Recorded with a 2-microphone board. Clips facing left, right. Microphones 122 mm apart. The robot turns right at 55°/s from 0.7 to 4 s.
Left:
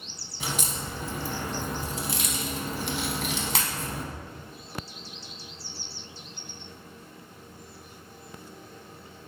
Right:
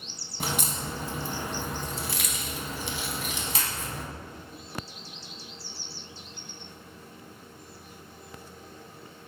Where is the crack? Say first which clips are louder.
Right 1 dB; 55° right (ahead or behind), 0.7 m; by 4.0 s 50° left (ahead or behind), 0.7 m.